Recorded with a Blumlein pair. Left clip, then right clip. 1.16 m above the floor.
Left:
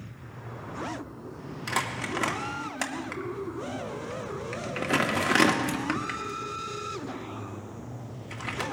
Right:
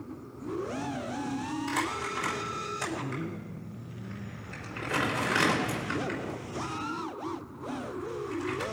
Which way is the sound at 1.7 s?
55° left.